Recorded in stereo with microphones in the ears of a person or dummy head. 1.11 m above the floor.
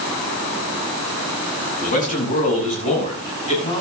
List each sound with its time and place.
1.8 s a man speaking: 45° left (ahead or behind), 6.5 m; by 3.8 s 35° left (ahead or behind), 7 m